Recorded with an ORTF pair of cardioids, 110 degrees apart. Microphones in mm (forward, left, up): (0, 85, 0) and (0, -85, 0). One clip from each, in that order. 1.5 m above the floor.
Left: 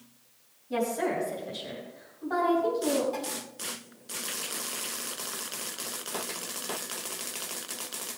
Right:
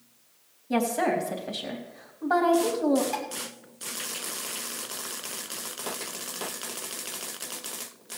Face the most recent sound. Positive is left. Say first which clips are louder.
# right 3 dB
turn(degrees=-65)